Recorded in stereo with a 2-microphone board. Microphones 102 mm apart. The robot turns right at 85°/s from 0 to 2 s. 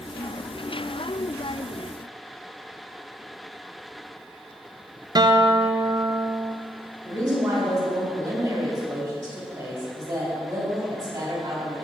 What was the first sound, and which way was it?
A guitar, 40° right (ahead or behind).